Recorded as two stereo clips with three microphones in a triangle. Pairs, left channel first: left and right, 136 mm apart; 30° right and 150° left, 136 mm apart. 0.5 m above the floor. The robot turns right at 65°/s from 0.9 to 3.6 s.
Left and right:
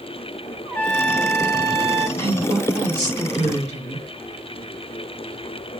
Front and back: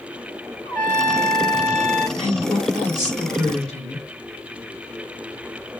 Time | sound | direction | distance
0.7 | a trumpet | 30° left | 0.8 m
2.2 | a woman speaking | 155° left | 2.0 m